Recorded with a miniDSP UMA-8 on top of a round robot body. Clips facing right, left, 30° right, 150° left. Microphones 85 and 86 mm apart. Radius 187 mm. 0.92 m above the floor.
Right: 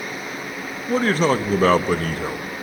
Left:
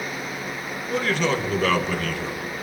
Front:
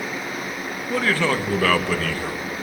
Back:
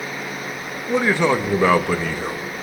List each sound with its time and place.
0.9 s a man speaking: 140° right, 1.4 m